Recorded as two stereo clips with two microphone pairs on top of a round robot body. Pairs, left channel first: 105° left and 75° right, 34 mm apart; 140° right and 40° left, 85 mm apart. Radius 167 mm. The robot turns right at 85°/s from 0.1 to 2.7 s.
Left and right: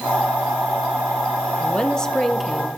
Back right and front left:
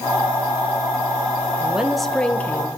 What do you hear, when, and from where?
1.6 s a woman speaking: 115° left, 1.0 m; by 2.7 s 155° right, 1.0 m